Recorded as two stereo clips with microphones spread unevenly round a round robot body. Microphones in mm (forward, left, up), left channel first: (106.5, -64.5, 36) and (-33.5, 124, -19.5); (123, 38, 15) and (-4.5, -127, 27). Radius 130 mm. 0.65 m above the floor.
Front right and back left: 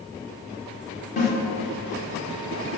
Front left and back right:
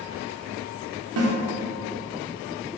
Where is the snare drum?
120° right, 1.1 m.